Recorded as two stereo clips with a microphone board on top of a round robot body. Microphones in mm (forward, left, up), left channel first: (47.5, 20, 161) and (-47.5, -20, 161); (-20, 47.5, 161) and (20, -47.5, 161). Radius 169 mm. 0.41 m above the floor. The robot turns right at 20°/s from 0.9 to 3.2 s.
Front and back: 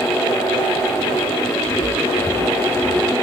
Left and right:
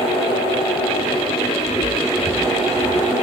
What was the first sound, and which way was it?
Footsteps, 50° left.